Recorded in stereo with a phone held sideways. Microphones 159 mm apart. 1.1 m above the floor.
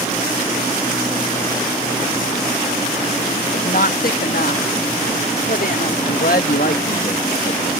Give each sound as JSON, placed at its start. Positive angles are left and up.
{"t": 3.5, "sound": "a woman speaking", "side_deg": 65}
{"t": 6.0, "sound": "a man speaking", "side_deg": 65}